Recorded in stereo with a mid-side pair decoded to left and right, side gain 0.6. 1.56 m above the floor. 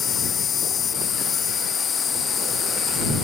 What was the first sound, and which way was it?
An insect, 40° left.